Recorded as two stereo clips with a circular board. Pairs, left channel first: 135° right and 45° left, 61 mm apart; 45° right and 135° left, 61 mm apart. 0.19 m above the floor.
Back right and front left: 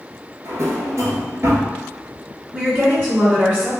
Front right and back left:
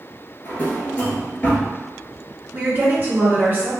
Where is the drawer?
15° left, 0.7 m.